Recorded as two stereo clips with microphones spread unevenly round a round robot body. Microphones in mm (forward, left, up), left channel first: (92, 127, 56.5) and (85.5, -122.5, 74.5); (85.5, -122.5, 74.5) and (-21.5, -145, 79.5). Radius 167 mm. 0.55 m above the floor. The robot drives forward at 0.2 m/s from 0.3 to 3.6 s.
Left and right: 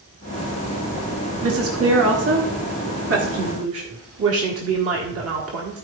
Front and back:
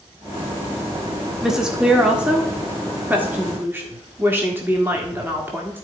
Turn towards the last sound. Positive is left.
turn(degrees=-100)